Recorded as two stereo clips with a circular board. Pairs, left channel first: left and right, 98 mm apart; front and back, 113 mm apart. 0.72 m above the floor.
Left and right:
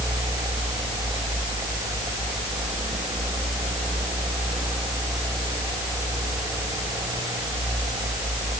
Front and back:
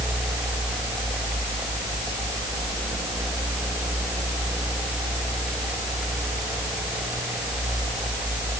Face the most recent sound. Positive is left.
No sound to turn to.